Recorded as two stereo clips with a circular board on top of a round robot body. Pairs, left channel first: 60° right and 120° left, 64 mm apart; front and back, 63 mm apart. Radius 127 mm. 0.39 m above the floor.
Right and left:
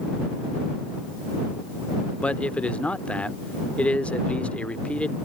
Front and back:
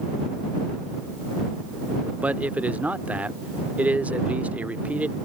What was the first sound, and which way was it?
A man speaking, 120° right.